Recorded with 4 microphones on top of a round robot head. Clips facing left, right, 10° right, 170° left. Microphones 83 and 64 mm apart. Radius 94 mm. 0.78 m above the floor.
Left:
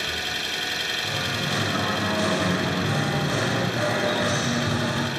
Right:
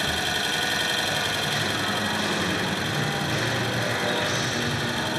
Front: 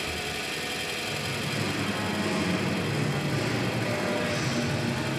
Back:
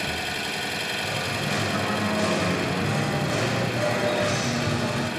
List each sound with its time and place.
0.0 s an engine running: 145° right, 2 m
1.0 s singing: 150° left, 4 m